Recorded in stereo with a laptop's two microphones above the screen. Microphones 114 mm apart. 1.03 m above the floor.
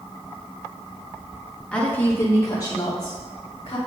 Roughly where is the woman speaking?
Centre.